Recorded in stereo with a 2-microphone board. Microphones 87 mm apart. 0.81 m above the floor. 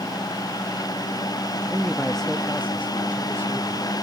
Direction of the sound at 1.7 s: 15° right (ahead or behind).